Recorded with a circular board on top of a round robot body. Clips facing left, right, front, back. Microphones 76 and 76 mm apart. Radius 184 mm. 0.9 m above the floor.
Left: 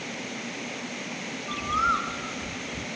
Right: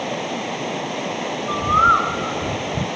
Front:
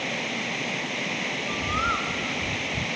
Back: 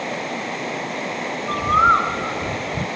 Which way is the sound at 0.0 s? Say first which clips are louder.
Right 11 dB, back 4 dB; 120° right.